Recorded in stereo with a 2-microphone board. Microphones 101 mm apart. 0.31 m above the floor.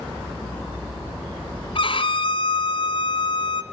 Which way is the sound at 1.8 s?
60° left (ahead or behind).